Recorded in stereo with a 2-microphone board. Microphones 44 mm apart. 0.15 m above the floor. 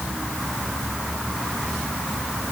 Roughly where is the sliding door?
No sliding door in this recording.